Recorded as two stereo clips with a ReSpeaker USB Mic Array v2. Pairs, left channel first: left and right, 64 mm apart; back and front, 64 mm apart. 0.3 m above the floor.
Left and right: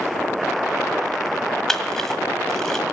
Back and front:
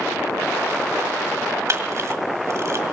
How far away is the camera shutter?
About 1.5 m.